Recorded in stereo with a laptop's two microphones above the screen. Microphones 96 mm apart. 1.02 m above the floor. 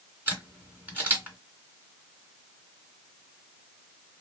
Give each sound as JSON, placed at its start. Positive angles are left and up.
{"t": 0.3, "sound": "a camera shutter", "side_deg": -20, "distance_m": 2.5}